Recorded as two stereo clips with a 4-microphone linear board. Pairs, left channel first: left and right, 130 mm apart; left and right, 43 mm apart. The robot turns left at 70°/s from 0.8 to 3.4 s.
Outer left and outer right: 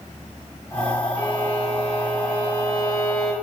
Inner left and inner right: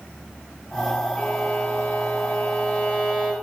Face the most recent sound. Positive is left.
turn(degrees=-5)